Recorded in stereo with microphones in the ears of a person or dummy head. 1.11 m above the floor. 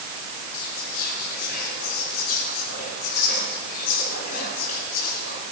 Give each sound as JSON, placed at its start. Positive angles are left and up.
{"t": 0.5, "sound": "whispering", "side_deg": 70, "distance_m": 4.0}